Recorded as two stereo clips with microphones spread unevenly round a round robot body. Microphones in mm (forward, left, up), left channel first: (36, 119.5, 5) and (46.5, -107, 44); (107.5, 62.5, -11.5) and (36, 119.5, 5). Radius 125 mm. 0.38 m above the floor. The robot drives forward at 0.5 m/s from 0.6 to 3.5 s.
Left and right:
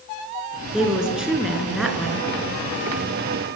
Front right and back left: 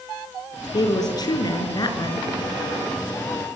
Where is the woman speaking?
Straight ahead, 7 m.